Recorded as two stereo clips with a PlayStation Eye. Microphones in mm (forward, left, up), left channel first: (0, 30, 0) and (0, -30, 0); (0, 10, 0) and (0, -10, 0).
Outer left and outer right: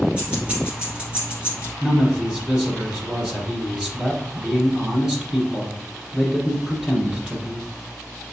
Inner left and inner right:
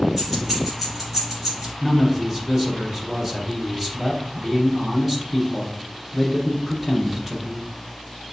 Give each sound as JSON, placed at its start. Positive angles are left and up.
{"t": 0.2, "sound": "keys jangling", "side_deg": -20, "distance_m": 1.9}
{"t": 1.8, "sound": "a man speaking", "side_deg": -15, "distance_m": 1.1}